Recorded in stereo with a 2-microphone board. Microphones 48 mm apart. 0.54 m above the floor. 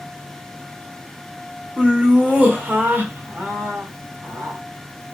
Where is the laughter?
20° right (ahead or behind), 1.6 m; by 4.6 s 60° right (ahead or behind), 2.0 m.